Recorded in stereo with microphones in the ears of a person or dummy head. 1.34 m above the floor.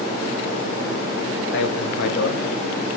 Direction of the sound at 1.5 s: 65° left (ahead or behind).